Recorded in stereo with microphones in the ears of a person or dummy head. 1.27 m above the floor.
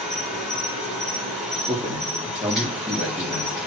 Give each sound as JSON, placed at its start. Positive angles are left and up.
{"t": 0.0, "sound": "an insect", "side_deg": 0, "distance_m": 4.0}
{"t": 1.7, "sound": "a man speaking", "side_deg": -5, "distance_m": 3.0}